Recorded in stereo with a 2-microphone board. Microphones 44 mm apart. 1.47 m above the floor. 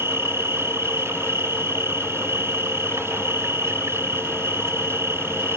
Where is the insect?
85° right.